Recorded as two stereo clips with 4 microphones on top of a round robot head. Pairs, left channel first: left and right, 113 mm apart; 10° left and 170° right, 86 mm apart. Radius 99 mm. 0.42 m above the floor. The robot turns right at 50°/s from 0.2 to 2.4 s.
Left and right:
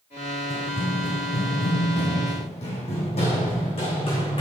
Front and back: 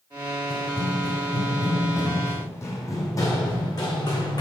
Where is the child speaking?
I don't hear a child speaking.